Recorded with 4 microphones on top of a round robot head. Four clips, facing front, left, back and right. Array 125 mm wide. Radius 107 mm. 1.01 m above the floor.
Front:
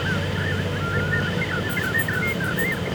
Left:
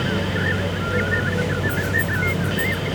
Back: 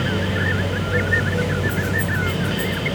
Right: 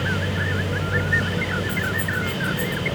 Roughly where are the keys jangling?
Ahead.